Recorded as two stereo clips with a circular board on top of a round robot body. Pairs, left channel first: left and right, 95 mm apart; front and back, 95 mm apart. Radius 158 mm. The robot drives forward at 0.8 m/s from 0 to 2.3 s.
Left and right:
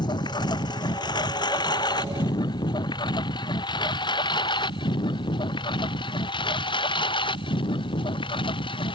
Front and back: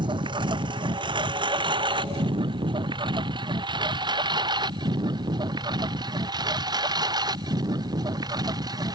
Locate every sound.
0.0 s a lawn mower: 135° left; by 9.0 s 130° left